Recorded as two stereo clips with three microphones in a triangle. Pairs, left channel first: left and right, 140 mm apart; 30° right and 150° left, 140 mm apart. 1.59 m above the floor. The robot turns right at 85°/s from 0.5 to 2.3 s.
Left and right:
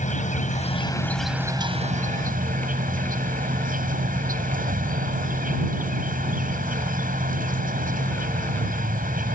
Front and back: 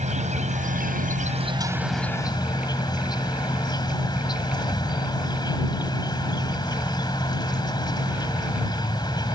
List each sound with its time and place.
0.0 s an insect: 115° left; by 9.3 s 90° right